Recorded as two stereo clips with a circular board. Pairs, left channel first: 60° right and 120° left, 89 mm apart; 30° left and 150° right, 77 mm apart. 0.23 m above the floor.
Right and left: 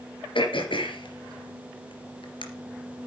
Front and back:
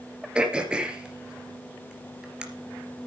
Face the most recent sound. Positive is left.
turn(degrees=-70)